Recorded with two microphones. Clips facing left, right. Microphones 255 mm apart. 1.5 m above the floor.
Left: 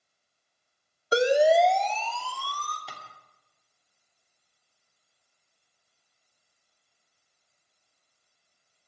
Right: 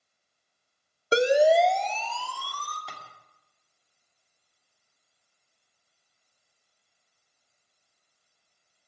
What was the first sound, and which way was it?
A siren, 30° right (ahead or behind).